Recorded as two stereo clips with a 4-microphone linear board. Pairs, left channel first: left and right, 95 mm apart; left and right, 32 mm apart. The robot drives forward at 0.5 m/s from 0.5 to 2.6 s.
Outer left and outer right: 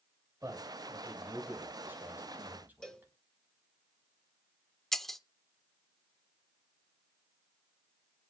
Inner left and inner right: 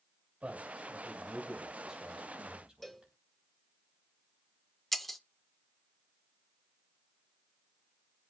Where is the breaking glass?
5° left (ahead or behind), 0.6 m.